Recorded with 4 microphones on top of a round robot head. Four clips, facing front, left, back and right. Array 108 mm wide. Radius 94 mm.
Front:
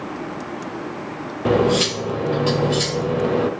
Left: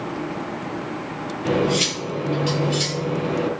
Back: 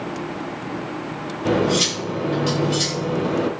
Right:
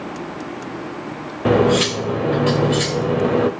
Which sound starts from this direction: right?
Cutlery clinking, at 1.4 s.